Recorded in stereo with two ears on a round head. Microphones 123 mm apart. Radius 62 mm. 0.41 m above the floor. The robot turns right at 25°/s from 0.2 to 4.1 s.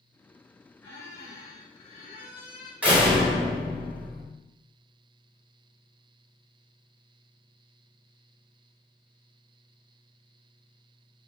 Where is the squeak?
15° left, 1.2 m; by 2.7 s 65° left, 1.2 m.